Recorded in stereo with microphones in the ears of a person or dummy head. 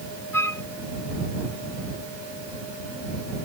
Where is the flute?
15° left (ahead or behind).